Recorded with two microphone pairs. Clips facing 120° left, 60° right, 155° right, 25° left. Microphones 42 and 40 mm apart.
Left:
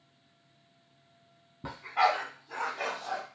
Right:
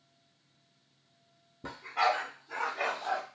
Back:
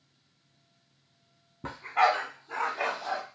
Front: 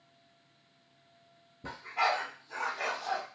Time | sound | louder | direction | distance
1.6 | a dog barking | left 2 dB, back 6 dB | 170° right | 0.9 m